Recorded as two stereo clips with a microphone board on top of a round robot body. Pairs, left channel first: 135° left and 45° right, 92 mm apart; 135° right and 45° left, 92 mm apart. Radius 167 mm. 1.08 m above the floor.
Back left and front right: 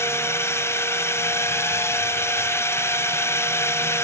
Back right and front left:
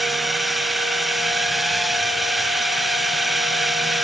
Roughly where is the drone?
Behind left.